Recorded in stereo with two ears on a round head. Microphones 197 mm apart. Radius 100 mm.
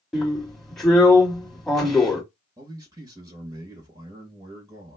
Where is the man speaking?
15° right (ahead or behind), 0.9 m.